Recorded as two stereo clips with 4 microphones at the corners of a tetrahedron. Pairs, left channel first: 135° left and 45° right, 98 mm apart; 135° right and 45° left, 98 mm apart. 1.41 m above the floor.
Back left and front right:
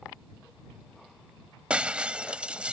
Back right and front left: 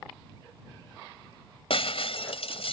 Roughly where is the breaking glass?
Behind right.